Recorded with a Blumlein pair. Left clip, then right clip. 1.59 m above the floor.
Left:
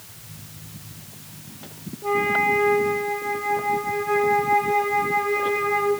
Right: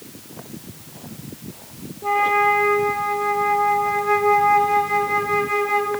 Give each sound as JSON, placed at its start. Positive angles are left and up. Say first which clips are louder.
{"t": 2.0, "sound": "a flute", "louder": "right 3 dB", "azimuth_deg": -10, "distance_m": 2.5}